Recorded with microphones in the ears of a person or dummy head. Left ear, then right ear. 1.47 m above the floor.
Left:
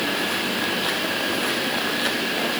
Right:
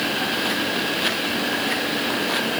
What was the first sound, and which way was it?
Only background noise.